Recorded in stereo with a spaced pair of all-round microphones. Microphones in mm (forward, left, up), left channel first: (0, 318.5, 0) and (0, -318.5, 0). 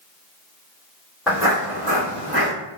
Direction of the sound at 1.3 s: Centre (ahead or behind).